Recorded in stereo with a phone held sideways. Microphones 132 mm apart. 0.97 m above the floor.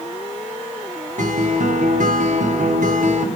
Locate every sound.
1.2 s a guitar: 70° right (ahead or behind), 1.4 m